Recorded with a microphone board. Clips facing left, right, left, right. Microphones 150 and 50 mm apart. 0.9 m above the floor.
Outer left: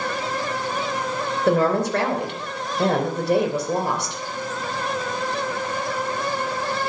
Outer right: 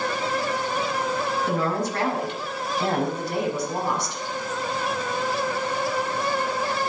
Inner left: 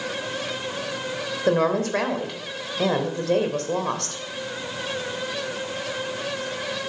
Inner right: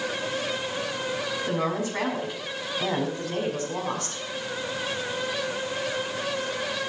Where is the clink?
No clink in this recording.